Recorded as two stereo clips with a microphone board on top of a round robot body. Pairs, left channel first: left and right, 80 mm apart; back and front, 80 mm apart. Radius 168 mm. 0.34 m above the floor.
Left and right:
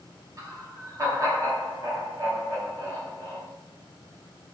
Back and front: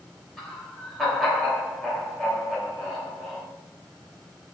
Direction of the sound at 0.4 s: 95° right.